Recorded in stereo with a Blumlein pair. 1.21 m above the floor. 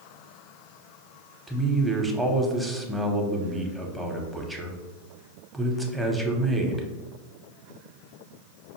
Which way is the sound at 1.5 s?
5° right.